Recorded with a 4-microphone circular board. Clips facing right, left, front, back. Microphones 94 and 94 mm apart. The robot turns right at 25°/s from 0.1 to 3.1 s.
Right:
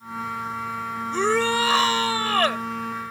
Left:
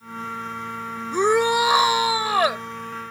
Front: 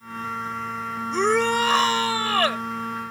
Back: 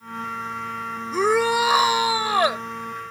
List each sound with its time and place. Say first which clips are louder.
1.1 s a shout: left 3 dB, back 1 dB; 110° left; by 2.6 s 145° left